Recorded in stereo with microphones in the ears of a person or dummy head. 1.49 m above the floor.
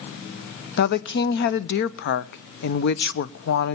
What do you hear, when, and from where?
0.8 s a woman speaking: 60° left (ahead or behind), 0.7 m